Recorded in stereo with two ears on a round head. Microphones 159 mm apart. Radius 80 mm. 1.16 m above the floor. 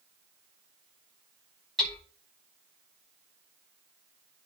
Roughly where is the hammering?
Centre.